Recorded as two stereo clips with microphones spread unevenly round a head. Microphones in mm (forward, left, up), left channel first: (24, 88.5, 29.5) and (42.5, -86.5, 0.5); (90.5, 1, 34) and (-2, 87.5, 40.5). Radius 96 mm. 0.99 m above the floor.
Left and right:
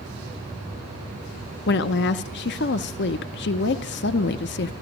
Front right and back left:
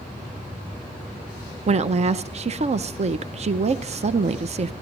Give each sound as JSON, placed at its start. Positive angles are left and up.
{"t": 1.7, "sound": "a woman speaking", "azimuth_deg": 115, "distance_m": 0.5}